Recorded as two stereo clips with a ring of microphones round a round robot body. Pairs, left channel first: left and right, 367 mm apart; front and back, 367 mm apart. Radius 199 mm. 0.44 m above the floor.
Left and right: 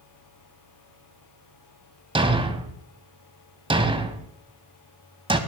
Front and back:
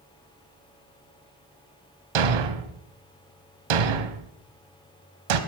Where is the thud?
165° right, 1.3 m.